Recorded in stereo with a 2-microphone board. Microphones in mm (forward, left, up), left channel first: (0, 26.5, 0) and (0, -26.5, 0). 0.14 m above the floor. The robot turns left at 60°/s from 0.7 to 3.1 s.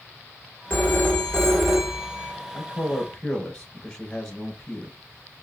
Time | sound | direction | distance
0.7 | a phone ringing | 50° left | 1.3 m
2.5 | a man speaking | 55° left | 2 m